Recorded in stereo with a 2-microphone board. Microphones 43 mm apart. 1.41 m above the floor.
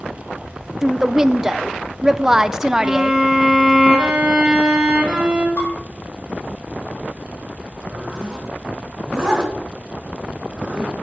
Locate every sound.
0.8 s a woman speaking: 15° right (ahead or behind), 0.5 m
2.8 s a violin: 20° right (ahead or behind), 2 m
5.6 s dishes clattering: 40° left (ahead or behind), 5.5 m
7.9 s a zipper: 20° right (ahead or behind), 3.5 m